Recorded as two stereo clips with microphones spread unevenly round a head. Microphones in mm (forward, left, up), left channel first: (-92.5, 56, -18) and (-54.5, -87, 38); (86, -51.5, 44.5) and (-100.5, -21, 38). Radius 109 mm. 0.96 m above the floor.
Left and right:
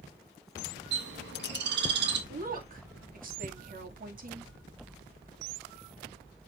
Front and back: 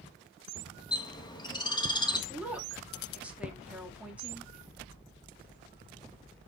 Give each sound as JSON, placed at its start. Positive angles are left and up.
{"t": 0.9, "sound": "a bird", "azimuth_deg": -75, "distance_m": 1.4}
{"t": 2.3, "sound": "a woman speaking", "azimuth_deg": -105, "distance_m": 1.9}